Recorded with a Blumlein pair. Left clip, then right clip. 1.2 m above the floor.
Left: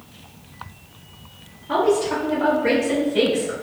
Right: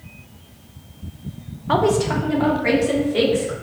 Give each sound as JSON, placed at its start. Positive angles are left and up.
{"t": 1.7, "sound": "a woman speaking", "azimuth_deg": -30, "distance_m": 0.7}